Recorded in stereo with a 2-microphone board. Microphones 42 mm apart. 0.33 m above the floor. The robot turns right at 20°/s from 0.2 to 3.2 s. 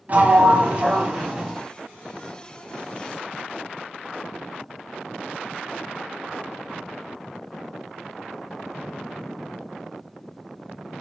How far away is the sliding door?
About 1.0 m.